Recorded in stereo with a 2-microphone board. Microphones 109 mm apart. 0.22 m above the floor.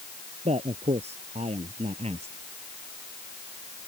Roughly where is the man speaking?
Right.